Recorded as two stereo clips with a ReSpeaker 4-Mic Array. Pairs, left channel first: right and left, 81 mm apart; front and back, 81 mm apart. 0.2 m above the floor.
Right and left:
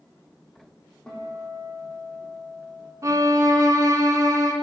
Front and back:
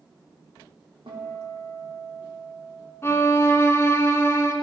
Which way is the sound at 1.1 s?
170° right.